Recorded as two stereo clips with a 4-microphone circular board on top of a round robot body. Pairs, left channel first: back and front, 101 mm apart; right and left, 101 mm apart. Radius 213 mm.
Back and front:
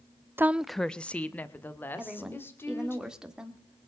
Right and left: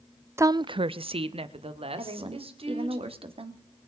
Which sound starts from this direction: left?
A woman speaking, at 2.0 s.